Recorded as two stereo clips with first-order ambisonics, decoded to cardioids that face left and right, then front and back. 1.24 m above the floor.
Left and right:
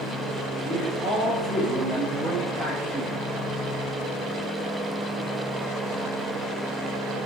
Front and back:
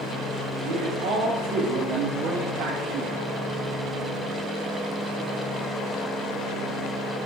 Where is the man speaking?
165° left, 3 m; by 3.2 s 175° left, 1.3 m.